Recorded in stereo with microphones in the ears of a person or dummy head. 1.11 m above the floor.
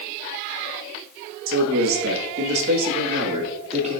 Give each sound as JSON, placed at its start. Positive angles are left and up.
{"t": 1.5, "sound": "a man speaking", "side_deg": -65, "distance_m": 1.5}